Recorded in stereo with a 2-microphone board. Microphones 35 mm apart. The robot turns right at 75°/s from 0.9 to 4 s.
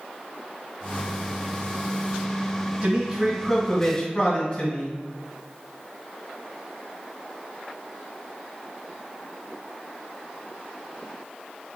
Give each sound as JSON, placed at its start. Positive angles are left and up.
{"t": 2.8, "sound": "a man speaking", "azimuth_deg": -55, "distance_m": 1.0}